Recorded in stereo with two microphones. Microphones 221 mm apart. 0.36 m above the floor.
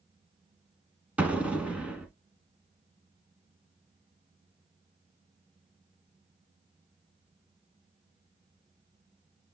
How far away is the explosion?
About 1.1 m.